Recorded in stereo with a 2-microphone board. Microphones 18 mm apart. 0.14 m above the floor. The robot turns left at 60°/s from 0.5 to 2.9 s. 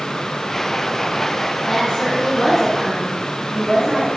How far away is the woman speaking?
About 1.9 m.